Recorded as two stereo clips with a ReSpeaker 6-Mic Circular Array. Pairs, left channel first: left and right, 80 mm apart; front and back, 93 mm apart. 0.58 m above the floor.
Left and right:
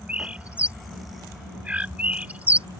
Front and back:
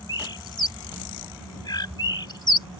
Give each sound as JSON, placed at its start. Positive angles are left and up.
{"t": 0.1, "sound": "a bird", "azimuth_deg": -20}